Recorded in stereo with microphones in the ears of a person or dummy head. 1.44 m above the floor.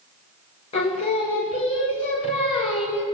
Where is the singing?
30° left (ahead or behind), 1.3 m.